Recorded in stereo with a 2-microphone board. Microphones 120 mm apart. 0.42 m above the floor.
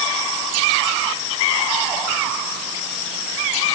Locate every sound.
Only background noise.